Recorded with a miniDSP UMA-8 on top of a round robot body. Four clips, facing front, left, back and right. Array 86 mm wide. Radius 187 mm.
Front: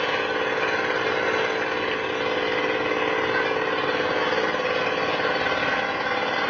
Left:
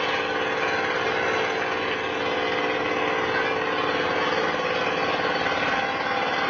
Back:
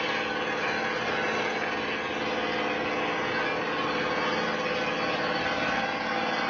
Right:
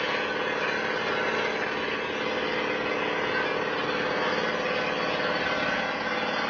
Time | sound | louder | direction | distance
0.0 | an engine running | left 3 dB, front 5 dB | 40° left | 0.9 m